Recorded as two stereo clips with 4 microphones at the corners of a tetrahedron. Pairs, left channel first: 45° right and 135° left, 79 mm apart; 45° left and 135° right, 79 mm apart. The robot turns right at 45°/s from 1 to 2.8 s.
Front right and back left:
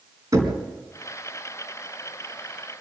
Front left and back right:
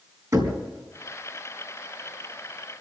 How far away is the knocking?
About 4 m.